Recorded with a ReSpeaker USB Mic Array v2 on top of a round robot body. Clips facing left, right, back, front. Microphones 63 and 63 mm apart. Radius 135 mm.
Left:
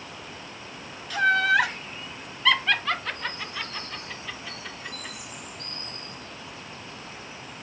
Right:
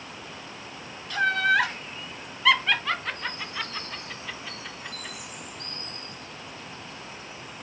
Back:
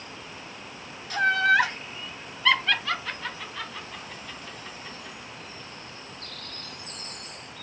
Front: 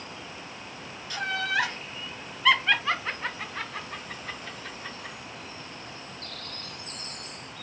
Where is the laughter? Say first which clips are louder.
Left 2 dB, back 8 dB; 175° left, 1.2 m; by 5.2 s 10° right, 1.9 m.